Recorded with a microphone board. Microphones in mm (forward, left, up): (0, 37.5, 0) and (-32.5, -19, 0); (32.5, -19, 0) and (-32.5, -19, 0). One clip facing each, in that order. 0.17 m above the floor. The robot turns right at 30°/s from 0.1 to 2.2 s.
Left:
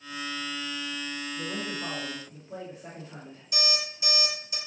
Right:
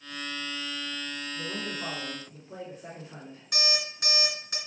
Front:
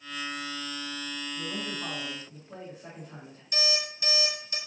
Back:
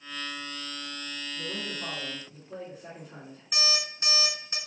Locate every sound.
1.4 s a man speaking: 95° right, 1.6 m; by 3.4 s 70° right, 1.6 m
3.5 s an alarm clock: 125° right, 1.6 m